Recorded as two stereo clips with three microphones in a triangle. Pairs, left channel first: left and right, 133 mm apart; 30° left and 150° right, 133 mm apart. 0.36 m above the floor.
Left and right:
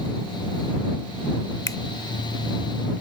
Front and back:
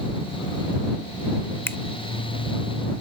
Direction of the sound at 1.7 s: 80° left.